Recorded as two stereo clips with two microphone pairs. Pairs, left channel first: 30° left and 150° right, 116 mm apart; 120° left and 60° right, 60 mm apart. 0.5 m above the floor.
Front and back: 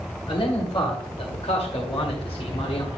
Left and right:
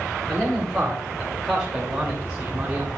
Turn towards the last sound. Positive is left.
turn(degrees=5)